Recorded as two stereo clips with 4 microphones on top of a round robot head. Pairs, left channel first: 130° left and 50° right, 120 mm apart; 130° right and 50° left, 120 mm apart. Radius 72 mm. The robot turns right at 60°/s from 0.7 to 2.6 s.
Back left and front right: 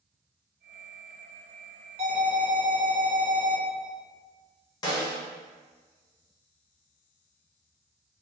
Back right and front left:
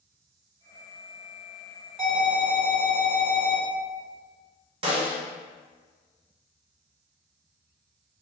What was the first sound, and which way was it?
An alarm, 30° right.